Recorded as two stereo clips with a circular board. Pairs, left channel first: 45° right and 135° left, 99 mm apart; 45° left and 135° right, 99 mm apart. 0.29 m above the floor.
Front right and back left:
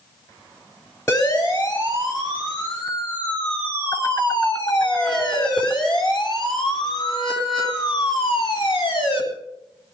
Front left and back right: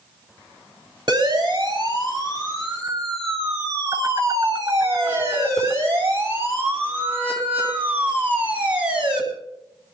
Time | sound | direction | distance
1.1 | a siren | 90° right | 7 m